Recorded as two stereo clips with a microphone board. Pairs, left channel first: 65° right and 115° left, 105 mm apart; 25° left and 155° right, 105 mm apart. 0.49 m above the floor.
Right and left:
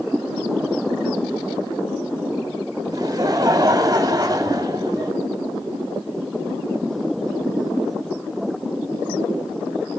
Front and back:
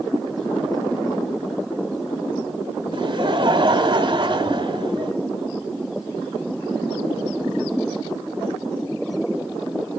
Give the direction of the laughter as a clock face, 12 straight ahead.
6 o'clock.